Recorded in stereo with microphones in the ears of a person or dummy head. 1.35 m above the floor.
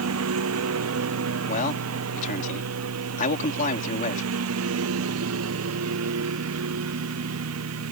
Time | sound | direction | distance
0.0 | a lawn mower | 85° right | ?
1.5 | a man speaking | 45° left (ahead or behind) | ?